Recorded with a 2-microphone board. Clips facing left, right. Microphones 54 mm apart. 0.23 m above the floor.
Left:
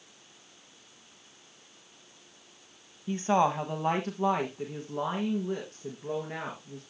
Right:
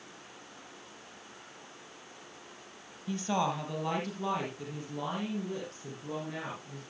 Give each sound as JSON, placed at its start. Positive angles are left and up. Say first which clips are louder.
{"t": 3.1, "sound": "a woman speaking", "louder": "left 6 dB", "side_deg": 25, "distance_m": 1.0}